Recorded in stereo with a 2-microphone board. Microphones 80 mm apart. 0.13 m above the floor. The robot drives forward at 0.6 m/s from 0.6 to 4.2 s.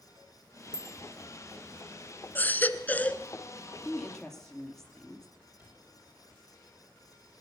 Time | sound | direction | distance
0.7 | a bicycle bell | 55° right (ahead or behind) | 4.5 m
2.4 | a baby crying | 25° left (ahead or behind) | 0.6 m
3.9 | a woman speaking | 5° left (ahead or behind) | 2.5 m
5.6 | a cupboard door | 25° right (ahead or behind) | 8 m